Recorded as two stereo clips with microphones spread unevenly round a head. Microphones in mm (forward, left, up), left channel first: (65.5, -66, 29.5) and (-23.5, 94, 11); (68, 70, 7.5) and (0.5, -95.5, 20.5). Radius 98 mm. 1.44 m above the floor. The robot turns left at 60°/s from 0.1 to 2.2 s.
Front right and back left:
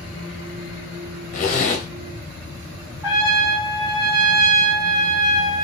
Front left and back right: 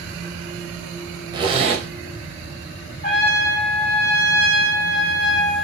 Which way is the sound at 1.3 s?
60° right.